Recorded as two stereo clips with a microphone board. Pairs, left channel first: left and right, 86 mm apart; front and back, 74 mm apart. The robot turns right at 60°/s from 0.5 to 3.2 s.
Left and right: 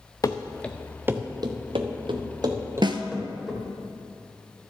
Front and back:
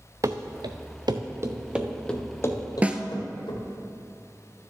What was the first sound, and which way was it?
Running footsteps, 140° left.